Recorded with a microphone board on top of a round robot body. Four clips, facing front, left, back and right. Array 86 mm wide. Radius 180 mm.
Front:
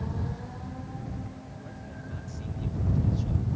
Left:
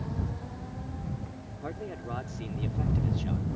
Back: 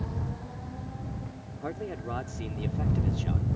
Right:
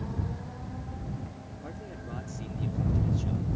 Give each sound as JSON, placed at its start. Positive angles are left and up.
{"t": 1.6, "sound": "a man speaking", "azimuth_deg": 155}